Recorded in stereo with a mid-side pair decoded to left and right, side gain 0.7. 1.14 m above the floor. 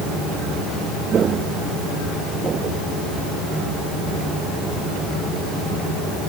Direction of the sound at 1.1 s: 35° right.